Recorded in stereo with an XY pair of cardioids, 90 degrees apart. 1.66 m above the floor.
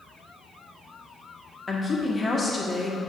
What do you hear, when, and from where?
1.7 s a woman speaking: 30° left, 1.4 m